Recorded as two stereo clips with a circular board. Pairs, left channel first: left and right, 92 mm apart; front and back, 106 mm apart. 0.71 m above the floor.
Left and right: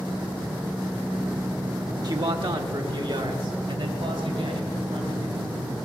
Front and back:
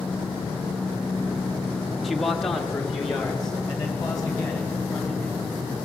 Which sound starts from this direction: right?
A man speaking, at 2.0 s.